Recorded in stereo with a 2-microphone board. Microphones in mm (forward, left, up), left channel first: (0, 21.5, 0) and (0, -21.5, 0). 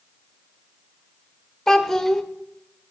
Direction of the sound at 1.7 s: 10° left (ahead or behind).